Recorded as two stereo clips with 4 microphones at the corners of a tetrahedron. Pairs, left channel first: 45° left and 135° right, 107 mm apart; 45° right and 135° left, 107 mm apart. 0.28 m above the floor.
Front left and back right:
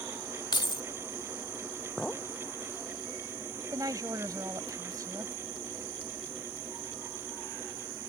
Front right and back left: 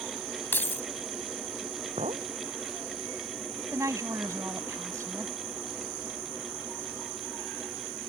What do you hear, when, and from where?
0.5 s keys jangling: 20° left
2.0 s a clink: 130° left
3.7 s a woman speaking: 175° right